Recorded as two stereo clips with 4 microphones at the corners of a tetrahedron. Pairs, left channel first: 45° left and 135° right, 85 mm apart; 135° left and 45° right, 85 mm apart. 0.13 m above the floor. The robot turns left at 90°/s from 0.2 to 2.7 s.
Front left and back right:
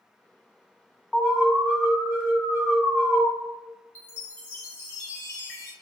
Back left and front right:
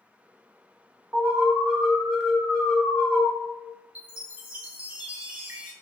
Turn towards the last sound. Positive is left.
turn(degrees=10)